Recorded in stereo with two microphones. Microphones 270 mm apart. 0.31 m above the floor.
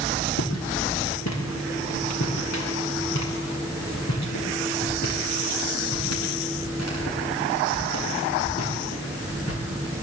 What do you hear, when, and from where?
0.4 s footsteps: 70° left (ahead or behind), 5 m; by 10.0 s 60° left (ahead or behind), 11 m